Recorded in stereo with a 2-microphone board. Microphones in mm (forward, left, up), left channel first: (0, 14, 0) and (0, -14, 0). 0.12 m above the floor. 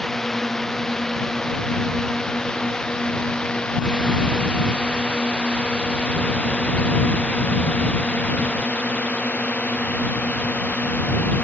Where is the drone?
10° left (ahead or behind); by 11.4 s 65° left (ahead or behind).